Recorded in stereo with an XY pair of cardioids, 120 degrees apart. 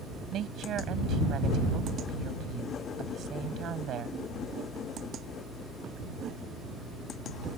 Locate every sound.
0.3 s a woman speaking: 55° right